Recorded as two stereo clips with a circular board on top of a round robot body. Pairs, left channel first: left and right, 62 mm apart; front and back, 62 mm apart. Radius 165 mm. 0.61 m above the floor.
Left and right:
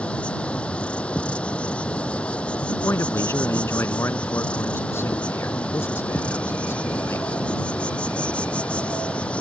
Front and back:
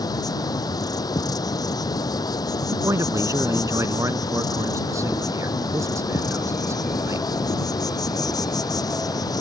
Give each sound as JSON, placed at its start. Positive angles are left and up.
{"t": 0.0, "sound": "an insect", "azimuth_deg": 15}
{"t": 2.7, "sound": "a man speaking", "azimuth_deg": 140}